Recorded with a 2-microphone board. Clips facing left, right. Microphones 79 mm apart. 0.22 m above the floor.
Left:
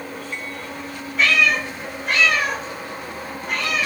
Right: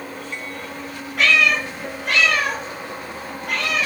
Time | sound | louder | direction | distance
1.2 | a cat meowing | right 1 dB | 75° right (ahead or behind) | 1.7 m